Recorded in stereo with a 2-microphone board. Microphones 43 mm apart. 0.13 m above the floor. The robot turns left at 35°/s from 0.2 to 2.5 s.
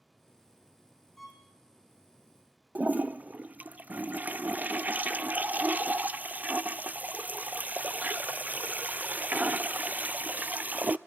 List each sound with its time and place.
1.2 s a violin: 5° left (ahead or behind), 4.5 m; by 1.4 s 5° right (ahead or behind), 4.5 m
2.8 s a toilet flushing: 40° right (ahead or behind), 0.5 m